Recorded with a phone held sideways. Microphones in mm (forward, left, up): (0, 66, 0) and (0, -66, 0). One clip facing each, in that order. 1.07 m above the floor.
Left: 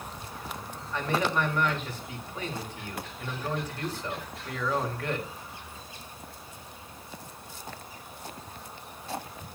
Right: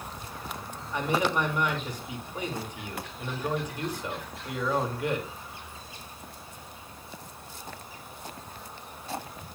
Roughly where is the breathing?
No breathing in this recording.